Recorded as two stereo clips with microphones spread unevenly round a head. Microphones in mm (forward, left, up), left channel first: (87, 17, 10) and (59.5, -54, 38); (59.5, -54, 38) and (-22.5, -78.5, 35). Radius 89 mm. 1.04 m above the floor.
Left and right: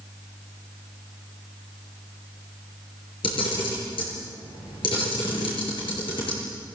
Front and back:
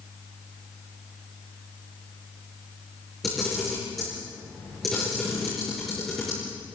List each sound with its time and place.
3.2 s a camera shutter: 105° left, 7 m